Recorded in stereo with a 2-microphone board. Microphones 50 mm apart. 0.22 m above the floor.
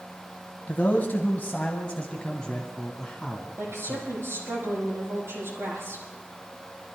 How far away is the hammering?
I don't hear hammering.